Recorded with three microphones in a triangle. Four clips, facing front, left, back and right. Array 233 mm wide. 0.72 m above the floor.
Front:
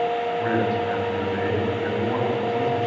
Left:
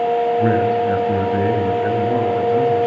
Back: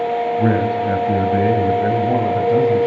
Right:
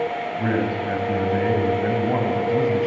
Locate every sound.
0.4 s a man speaking: 175° left, 4.5 m; by 2.9 s 155° right, 4.5 m